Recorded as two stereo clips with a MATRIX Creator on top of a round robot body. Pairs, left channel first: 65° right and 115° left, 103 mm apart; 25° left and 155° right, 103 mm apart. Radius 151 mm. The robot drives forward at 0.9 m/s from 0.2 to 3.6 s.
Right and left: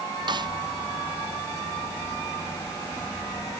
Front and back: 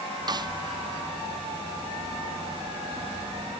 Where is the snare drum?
155° left.